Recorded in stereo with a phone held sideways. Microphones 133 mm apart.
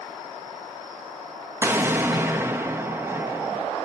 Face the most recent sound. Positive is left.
turn(degrees=-15)  # may be behind; listen again after turning